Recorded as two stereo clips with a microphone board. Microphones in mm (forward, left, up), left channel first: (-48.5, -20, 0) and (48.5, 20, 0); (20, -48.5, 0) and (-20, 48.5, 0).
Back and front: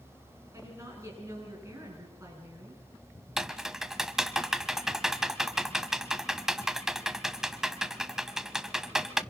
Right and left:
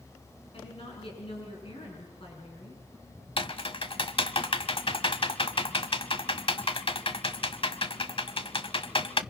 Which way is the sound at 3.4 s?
65° right.